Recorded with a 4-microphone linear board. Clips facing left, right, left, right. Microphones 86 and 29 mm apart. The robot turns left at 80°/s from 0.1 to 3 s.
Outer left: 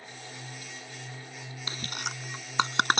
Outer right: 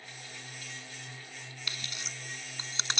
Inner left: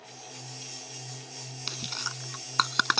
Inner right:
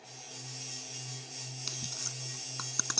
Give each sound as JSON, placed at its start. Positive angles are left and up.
{"t": 1.7, "sound": "chewing", "side_deg": 30}